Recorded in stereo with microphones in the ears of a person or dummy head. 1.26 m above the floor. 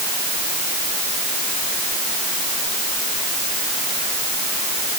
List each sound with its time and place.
Only background noise.